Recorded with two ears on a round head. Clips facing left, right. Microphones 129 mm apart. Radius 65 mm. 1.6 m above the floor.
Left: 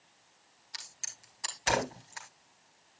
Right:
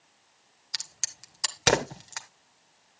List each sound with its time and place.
0.7 s a crack: 75° right (ahead or behind), 1.9 m